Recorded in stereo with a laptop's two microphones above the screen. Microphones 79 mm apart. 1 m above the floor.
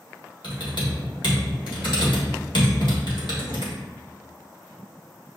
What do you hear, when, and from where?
0.4 s typing on a keyboard: 75° left (ahead or behind), 1.6 m